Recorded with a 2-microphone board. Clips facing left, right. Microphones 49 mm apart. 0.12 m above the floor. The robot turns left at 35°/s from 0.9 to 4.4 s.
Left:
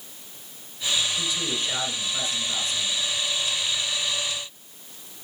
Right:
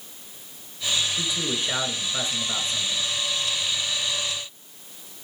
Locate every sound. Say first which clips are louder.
1.2 s a man speaking: right 1 dB; 15° right (ahead or behind), 1.6 m; by 3.1 s 30° right (ahead or behind), 1.6 m